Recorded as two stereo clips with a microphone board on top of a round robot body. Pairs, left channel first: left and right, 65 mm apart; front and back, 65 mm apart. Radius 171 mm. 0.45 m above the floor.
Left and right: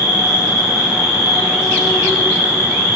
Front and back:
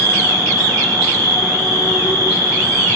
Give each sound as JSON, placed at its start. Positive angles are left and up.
{"t": 0.0, "sound": "an insect", "azimuth_deg": -25, "distance_m": 1.2}